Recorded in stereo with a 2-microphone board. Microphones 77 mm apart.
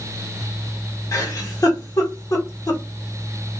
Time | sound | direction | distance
1.1 | a giggle | 45° left (ahead or behind) | 1.2 m